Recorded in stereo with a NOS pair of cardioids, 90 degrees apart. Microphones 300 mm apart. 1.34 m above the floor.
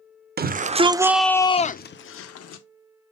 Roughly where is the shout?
Ahead right.